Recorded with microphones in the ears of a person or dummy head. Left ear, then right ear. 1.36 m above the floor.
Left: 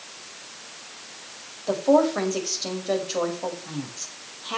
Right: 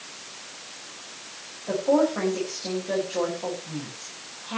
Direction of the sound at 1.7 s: 80° left.